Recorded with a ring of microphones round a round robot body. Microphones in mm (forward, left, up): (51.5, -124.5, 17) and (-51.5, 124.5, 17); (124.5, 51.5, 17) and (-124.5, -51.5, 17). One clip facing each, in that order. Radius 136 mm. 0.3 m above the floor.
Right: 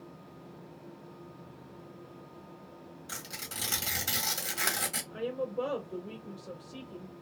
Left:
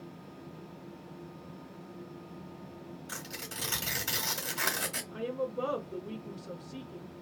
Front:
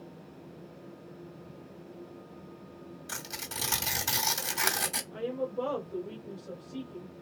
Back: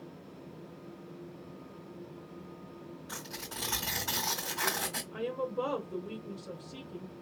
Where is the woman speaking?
175° left, 0.9 m.